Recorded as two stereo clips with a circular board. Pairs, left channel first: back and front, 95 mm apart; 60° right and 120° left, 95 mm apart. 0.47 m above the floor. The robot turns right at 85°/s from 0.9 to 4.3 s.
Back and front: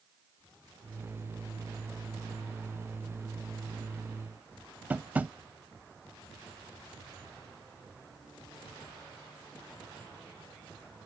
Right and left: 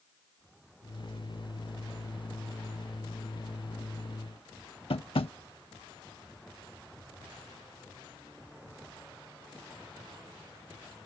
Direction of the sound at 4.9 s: 75° right.